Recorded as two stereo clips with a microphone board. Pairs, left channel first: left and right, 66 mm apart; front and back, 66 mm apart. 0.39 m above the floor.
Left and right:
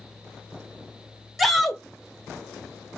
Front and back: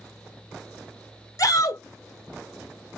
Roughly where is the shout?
Ahead.